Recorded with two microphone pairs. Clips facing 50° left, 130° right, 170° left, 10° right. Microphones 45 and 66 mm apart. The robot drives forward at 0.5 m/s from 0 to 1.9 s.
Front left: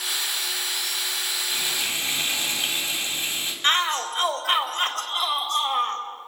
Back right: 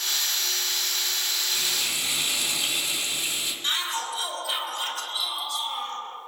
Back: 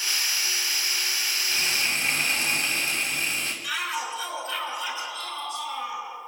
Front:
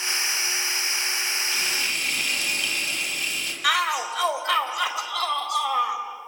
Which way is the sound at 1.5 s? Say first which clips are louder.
Front left 3 dB, even; 110° left.